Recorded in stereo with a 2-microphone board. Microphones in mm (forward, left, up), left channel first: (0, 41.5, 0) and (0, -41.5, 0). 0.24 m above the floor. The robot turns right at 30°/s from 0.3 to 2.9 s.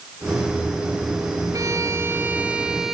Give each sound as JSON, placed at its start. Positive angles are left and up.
{"t": 1.5, "sound": "a violin", "azimuth_deg": -45, "distance_m": 3.0}